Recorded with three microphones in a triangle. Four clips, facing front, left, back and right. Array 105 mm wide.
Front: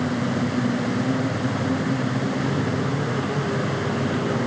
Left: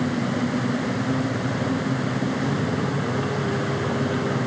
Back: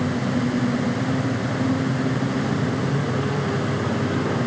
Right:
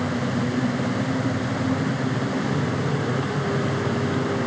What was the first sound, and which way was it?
Only background noise.